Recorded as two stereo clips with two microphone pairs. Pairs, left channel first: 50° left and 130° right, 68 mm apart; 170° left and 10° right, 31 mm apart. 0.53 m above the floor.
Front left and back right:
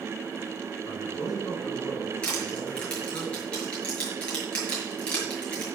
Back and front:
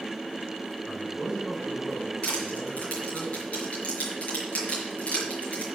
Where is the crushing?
125° left, 5.5 m.